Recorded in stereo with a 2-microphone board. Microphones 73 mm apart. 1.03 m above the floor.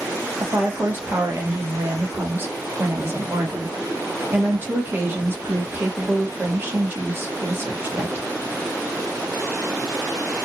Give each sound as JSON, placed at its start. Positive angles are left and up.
{"t": 0.4, "sound": "a woman speaking", "side_deg": -30, "distance_m": 1.2}